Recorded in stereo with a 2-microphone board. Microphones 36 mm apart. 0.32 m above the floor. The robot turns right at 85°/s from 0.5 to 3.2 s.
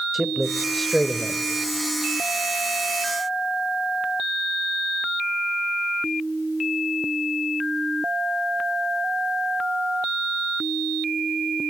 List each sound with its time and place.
0.1 s a man speaking: 5° right (ahead or behind), 0.9 m; by 1.4 s 20° left (ahead or behind), 0.9 m